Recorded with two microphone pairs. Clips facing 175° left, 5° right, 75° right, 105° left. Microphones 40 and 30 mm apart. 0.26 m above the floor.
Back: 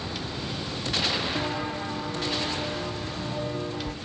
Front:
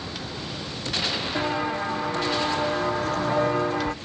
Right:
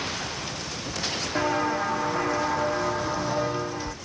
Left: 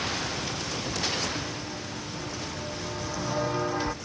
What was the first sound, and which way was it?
Footsteps, 70° right.